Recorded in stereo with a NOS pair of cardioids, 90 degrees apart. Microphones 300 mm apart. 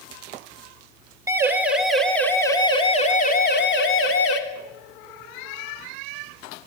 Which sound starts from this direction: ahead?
A siren, at 1.3 s.